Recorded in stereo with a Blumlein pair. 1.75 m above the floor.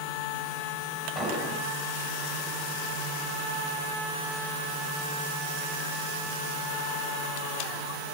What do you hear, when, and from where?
1.1 s an explosion: straight ahead, 7.5 m